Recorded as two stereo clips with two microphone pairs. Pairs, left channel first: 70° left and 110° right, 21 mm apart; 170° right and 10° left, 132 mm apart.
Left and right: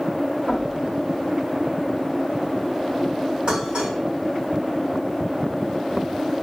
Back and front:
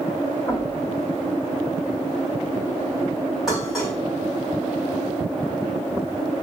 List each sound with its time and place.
0.5 s knocking: 85° right, 3.5 m
3.5 s dishes clattering: 80° right, 3.5 m